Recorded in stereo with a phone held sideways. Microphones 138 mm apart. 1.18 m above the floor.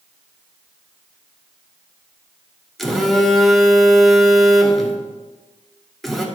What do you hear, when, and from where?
2.8 s a phone buzzing: centre (ahead or behind), 1.1 m